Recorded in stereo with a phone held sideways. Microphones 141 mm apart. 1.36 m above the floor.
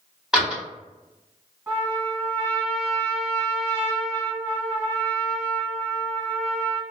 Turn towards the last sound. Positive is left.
turn(degrees=-15)  # may be behind; listen again after turning